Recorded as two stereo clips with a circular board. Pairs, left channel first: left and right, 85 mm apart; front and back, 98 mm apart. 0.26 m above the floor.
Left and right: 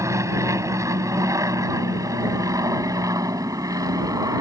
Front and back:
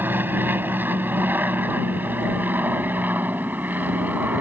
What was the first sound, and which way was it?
An aircraft, 120° right.